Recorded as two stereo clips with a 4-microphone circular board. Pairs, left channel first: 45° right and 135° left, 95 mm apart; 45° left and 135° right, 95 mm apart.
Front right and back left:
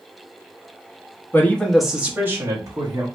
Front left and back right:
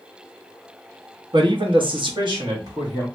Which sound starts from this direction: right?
A man speaking, at 1.3 s.